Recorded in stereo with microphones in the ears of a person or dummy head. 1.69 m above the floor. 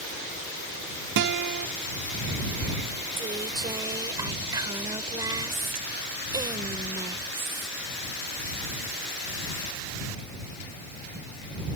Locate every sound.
1.2 s a guitar: 55° right (ahead or behind)
3.2 s a woman speaking: 20° right (ahead or behind)